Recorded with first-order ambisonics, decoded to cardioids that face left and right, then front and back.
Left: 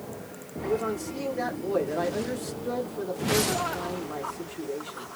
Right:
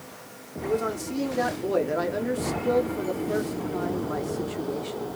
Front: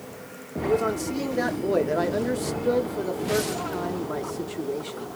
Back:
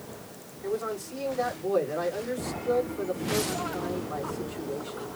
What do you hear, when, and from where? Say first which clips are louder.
0.6 s a man speaking: right 1 dB, front 7 dB; 25° right, 1.2 m